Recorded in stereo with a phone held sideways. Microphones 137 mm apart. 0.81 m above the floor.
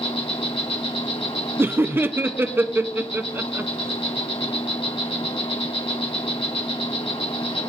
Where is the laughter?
15° right (ahead or behind), 0.5 m.